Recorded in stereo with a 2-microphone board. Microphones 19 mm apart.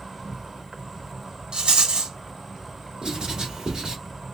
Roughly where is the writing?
Right.